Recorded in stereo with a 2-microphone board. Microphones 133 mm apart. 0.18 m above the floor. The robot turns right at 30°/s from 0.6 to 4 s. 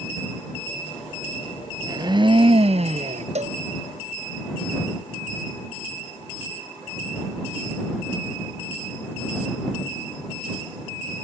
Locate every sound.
1.8 s a blender: 150° right; by 3.2 s 110° right
3.4 s a cowbell: 55° right (ahead or behind); by 3.6 s 65° right (ahead or behind)